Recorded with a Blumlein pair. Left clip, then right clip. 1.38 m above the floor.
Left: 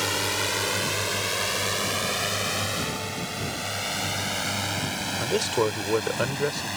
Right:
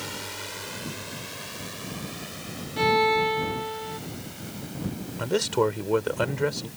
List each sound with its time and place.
0.0 s a drone: 30° left; by 6.8 s 40° left
2.8 s a violin: 40° right
5.2 s a man speaking: straight ahead